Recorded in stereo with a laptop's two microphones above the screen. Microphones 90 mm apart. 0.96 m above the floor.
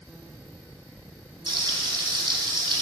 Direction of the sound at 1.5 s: 65° right (ahead or behind).